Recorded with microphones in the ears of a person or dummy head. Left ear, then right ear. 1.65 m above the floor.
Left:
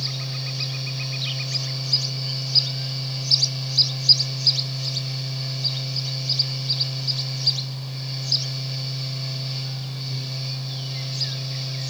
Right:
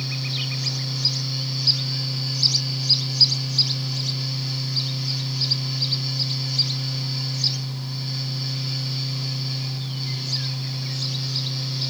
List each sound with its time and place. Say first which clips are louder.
0.0 s a fan: right 2 dB; 20° left (ahead or behind), 1.9 m